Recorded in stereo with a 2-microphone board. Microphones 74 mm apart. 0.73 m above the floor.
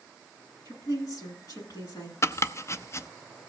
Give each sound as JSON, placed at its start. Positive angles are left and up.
{"t": 0.7, "sound": "a woman speaking", "side_deg": 60, "distance_m": 9.0}
{"t": 2.2, "sound": "chopping", "side_deg": 40, "distance_m": 0.6}